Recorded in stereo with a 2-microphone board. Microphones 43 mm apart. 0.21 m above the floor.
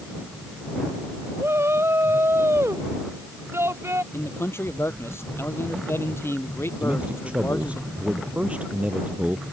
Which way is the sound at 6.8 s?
25° right (ahead or behind).